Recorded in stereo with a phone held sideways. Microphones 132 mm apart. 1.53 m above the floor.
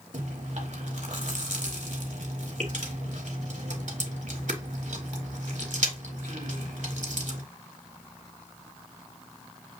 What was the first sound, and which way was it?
Chewing, 70° right (ahead or behind).